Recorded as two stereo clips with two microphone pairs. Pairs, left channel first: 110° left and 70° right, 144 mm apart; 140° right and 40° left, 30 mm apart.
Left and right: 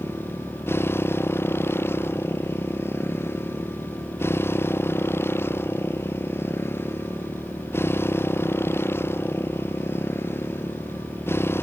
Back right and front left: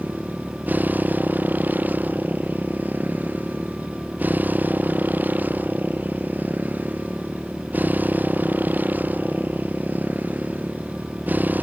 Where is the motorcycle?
40° left.